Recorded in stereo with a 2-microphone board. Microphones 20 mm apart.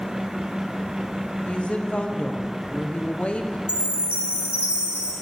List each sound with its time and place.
1.4 s a woman speaking: 75° left (ahead or behind), 1.1 m
3.7 s a chime: 80° right, 2.5 m